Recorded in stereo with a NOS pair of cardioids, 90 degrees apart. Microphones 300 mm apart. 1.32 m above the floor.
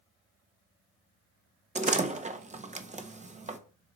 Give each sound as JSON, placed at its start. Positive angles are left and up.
{"t": 1.8, "sound": "a door slam", "azimuth_deg": -25, "distance_m": 1.0}